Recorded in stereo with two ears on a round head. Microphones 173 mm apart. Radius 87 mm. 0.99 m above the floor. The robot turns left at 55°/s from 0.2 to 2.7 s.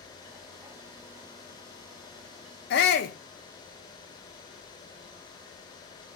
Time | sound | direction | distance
2.7 | a shout | 60° left (ahead or behind) | 0.5 m